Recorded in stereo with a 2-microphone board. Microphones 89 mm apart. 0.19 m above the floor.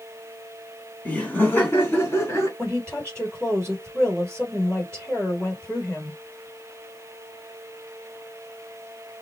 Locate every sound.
1.1 s laughter: 15° left (ahead or behind), 1.4 m; by 2.5 s 30° left (ahead or behind), 2.0 m
2.6 s a woman speaking: 15° left (ahead or behind), 4 m